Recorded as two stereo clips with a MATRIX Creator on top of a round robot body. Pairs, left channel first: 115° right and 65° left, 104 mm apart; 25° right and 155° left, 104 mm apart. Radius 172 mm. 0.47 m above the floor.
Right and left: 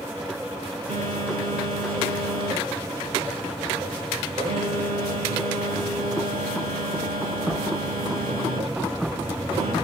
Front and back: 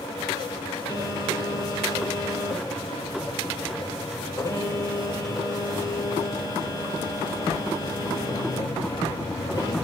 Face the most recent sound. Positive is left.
turn(degrees=40)